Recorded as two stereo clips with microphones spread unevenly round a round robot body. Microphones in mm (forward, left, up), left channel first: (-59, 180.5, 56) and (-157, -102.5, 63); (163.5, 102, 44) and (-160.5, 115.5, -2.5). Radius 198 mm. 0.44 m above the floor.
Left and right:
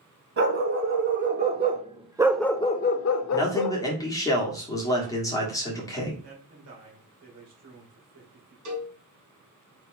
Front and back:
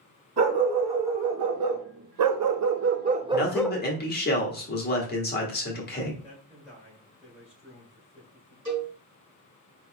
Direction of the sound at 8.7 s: 125° right.